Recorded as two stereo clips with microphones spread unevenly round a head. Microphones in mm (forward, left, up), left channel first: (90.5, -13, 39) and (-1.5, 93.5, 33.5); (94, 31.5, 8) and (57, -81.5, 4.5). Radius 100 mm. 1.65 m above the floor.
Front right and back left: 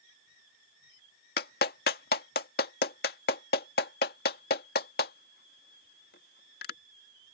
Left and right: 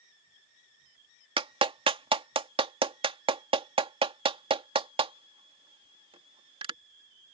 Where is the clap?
70° right.